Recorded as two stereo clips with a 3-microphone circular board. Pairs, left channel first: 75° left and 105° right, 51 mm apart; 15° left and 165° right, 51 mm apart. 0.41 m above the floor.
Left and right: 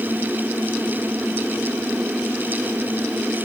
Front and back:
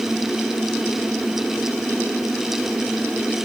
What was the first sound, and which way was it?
Only background noise.